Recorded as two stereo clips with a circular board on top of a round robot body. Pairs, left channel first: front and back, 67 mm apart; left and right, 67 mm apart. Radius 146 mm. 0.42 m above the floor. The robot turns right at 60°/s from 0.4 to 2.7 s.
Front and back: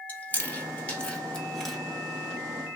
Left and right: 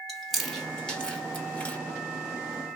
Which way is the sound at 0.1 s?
Straight ahead.